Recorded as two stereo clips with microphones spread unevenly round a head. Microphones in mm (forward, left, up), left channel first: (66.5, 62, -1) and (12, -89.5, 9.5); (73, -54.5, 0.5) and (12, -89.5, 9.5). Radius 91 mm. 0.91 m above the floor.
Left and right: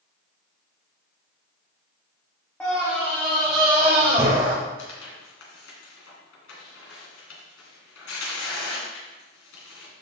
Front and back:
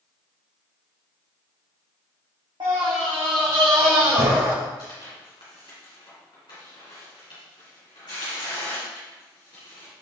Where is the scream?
155° left, 1.4 m; by 4.5 s 155° right, 3.5 m.